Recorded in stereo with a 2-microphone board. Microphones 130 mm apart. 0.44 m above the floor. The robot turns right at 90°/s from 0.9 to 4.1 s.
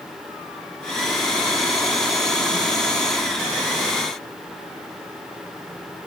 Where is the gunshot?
No gunshot in this recording.